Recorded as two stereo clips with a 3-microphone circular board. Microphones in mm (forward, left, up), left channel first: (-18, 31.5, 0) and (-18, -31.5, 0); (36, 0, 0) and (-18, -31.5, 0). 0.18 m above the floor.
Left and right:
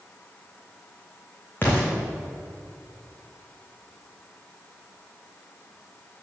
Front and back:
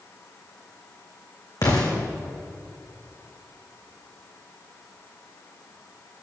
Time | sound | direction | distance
1.6 | an explosion | 35° left | 3.5 m